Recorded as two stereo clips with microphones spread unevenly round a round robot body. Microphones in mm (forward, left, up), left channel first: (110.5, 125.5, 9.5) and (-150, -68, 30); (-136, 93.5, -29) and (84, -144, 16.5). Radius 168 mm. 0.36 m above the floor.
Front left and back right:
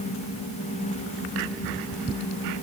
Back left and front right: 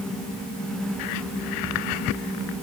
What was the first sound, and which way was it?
Only background noise.